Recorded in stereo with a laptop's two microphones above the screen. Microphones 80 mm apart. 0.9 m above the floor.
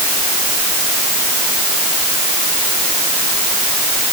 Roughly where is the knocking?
I don't hear knocking.